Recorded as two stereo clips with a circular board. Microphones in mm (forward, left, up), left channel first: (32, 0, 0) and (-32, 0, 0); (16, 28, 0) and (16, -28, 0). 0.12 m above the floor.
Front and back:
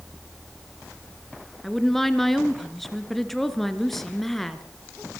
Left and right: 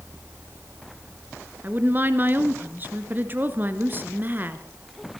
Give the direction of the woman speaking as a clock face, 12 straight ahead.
3 o'clock.